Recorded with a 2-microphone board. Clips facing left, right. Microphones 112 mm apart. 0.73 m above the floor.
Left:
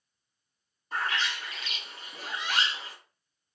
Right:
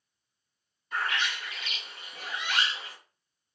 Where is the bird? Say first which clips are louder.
Even; 35° left (ahead or behind), 1.1 m.